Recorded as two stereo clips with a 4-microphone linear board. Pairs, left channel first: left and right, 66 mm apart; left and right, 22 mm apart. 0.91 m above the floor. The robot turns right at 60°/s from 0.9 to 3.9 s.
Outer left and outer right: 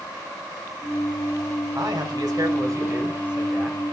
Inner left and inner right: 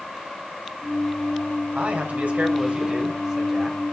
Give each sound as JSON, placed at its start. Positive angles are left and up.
{"t": 1.8, "sound": "a man speaking", "azimuth_deg": -110, "distance_m": 5.0}